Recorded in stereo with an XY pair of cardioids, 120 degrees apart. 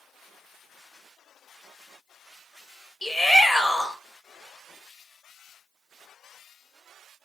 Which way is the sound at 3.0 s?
5° left.